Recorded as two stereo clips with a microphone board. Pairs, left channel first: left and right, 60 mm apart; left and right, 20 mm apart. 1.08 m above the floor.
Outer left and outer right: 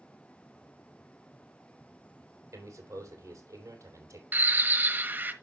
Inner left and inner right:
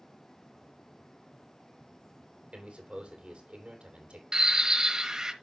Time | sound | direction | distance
2.5 | a man speaking | 60° right (ahead or behind) | 3.5 m
4.3 | a bird | 35° right (ahead or behind) | 1.1 m